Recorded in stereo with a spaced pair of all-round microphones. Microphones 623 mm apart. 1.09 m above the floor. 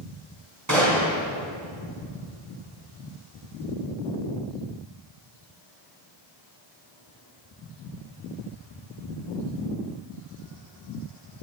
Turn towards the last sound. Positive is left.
turn(degrees=-30)  # may be behind; listen again after turning